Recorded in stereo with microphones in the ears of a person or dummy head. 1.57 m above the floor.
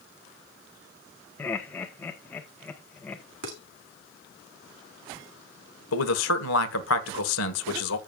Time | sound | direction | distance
1.4 | laughter | 5° left (ahead or behind) | 1.3 m
3.4 | dishes clattering | 60° right (ahead or behind) | 2.0 m
5.9 | a man speaking | 70° left (ahead or behind) | 1.4 m